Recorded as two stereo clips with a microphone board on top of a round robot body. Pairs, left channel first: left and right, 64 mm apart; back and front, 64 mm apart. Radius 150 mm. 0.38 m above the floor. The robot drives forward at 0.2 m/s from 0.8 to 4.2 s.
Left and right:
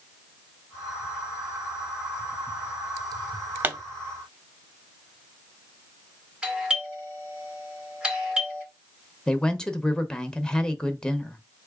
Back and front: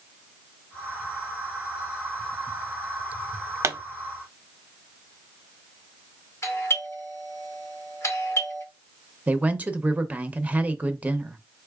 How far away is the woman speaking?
About 0.8 m.